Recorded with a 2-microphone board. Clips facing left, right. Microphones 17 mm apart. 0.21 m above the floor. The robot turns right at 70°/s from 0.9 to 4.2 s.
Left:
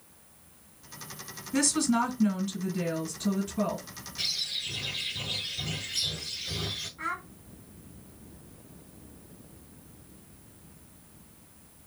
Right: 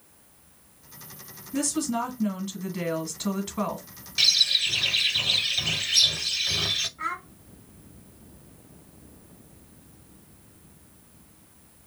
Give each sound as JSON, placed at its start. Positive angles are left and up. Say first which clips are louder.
{"t": 1.5, "sound": "a woman speaking", "louder": "left 1 dB", "azimuth_deg": 125, "distance_m": 1.6}
{"t": 4.2, "sound": "a bird", "louder": "right 11 dB", "side_deg": -60, "distance_m": 1.0}
{"t": 7.0, "sound": "a child speaking", "louder": "right 3 dB", "side_deg": 5, "distance_m": 1.5}